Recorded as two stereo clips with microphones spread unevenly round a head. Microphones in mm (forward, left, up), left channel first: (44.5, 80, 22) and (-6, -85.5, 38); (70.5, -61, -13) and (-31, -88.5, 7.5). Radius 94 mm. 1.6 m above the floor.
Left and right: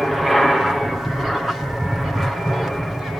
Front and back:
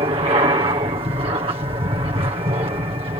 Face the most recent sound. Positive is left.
turn(degrees=160)